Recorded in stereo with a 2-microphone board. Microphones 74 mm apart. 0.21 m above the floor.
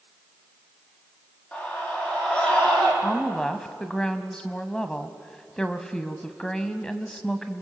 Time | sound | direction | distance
1.5 | a scream | 20° left (ahead or behind) | 7.5 m
3.0 | a woman speaking | 10° left (ahead or behind) | 1.1 m